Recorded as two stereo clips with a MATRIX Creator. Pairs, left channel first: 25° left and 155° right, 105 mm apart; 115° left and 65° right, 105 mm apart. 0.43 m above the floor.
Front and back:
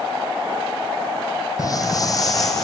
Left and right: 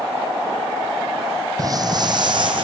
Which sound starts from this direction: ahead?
Footsteps, at 1.6 s.